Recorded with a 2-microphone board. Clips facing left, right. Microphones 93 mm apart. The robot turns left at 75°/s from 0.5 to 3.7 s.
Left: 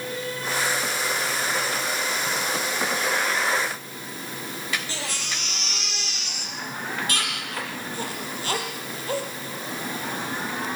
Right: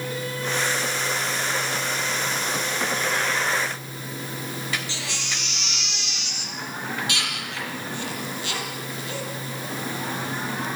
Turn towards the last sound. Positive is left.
turn(degrees=40)  # may be behind; listen again after turning